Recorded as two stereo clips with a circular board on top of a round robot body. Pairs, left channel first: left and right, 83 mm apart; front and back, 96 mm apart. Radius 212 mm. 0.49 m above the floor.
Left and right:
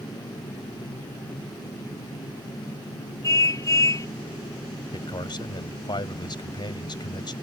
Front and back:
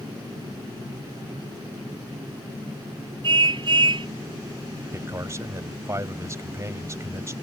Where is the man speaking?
120° left.